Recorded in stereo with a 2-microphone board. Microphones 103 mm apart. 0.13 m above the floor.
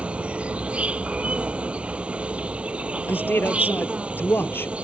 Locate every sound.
0.0 s an insect: 10° right (ahead or behind)
3.1 s a man speaking: 20° left (ahead or behind)